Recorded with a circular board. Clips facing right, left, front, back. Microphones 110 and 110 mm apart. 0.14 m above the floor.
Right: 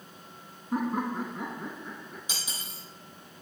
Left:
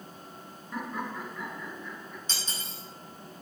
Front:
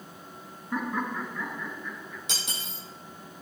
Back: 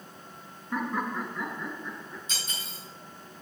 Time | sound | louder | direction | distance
0.7 | laughter | right 6 dB, even | 90° right | 1.6 m
2.3 | cutlery clinking | left 1 dB, front 2 dB | 10° right | 3.5 m